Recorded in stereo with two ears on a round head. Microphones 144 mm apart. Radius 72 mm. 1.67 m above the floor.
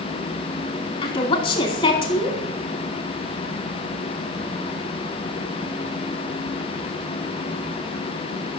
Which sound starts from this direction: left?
A woman speaking, at 1.0 s.